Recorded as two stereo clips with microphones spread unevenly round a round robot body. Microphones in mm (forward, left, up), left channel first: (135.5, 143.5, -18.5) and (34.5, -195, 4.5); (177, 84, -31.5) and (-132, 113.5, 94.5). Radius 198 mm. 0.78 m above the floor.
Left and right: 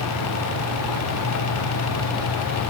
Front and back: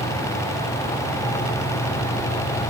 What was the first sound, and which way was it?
Only background noise.